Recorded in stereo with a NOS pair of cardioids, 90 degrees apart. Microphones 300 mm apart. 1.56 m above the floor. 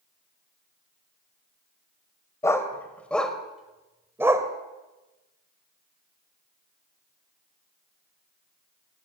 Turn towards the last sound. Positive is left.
turn(degrees=-10)